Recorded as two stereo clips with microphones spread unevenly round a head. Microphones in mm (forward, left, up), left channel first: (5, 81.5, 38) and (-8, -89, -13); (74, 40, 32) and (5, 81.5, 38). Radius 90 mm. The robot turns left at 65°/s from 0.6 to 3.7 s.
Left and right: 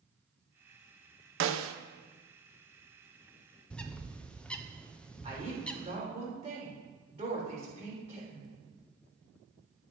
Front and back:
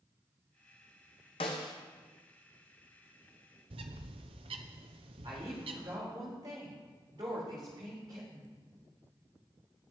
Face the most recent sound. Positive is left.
turn(degrees=-155)